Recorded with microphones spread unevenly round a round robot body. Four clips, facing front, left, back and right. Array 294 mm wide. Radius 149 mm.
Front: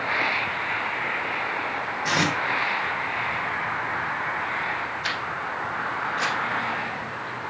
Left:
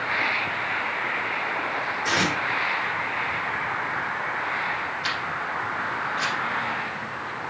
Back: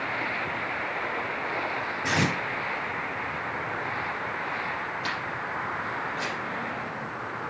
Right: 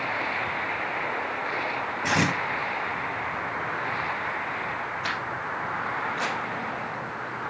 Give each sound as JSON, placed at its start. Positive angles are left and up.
{"t": 2.0, "sound": "tape being pulled", "azimuth_deg": -130, "distance_m": 3.0}
{"t": 5.0, "sound": "a camera shutter", "azimuth_deg": -150, "distance_m": 6.0}